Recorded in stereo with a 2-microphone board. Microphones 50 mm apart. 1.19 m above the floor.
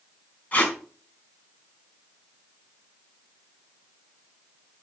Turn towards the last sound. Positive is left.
turn(degrees=30)  # may be behind; listen again after turning